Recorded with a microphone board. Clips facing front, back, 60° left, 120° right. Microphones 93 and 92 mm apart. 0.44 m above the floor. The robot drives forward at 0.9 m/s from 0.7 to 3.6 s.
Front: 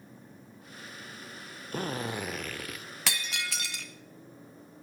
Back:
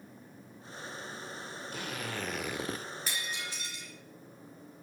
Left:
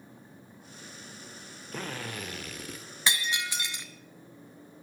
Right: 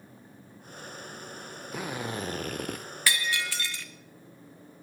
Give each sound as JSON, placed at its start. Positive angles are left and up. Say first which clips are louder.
{"t": 1.7, "sound": "a drill", "louder": "front 7 dB, right 3 dB", "azimuth_deg": -35, "distance_m": 0.8}
{"t": 3.1, "sound": "breaking glass", "louder": "front 6 dB, right 1 dB", "azimuth_deg": -10, "distance_m": 1.5}